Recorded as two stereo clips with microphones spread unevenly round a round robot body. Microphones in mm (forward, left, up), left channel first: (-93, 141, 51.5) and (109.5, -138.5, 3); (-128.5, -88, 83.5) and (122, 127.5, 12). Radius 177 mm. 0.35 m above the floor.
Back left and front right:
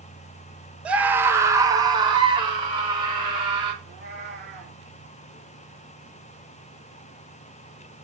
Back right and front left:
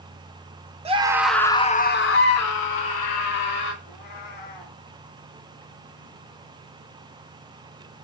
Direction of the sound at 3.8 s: 115° right.